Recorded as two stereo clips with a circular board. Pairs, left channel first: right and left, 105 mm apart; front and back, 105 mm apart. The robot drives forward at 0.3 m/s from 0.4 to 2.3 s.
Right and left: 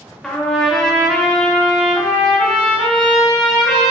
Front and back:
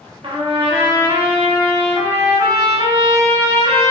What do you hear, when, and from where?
0.2 s a trumpet: 175° right, 0.7 m